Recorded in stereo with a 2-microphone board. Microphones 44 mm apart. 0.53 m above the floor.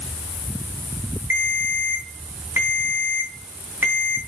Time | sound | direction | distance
1.3 | a ringtone | 55° right (ahead or behind) | 3.5 m